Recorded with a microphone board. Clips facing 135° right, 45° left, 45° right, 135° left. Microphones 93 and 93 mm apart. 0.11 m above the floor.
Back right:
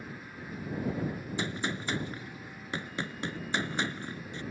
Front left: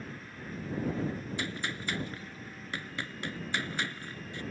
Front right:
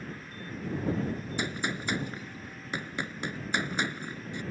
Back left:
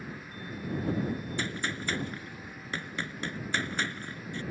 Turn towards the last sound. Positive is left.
turn(degrees=-100)